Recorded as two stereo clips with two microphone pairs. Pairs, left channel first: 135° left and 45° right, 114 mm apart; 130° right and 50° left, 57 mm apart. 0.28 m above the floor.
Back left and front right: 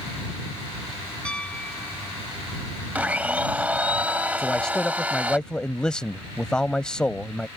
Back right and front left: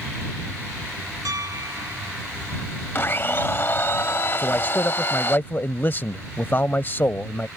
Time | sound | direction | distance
1.2 | a piano | 55° left | ?
3.0 | a blender | 110° right | ?
4.4 | a man speaking | 140° right | ?